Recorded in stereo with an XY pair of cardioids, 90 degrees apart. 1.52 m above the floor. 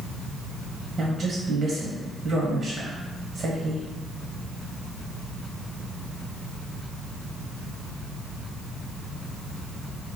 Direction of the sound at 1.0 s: 65° right.